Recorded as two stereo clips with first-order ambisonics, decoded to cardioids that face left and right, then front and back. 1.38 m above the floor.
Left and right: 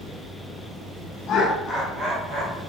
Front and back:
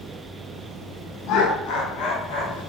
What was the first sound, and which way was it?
Laughter, 40° left.